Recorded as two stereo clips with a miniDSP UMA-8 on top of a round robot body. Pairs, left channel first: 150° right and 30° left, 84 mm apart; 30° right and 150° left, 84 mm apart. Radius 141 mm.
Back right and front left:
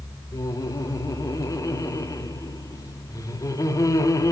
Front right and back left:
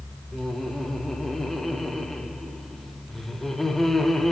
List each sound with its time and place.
0.3 s laughter: 115° right, 2.0 m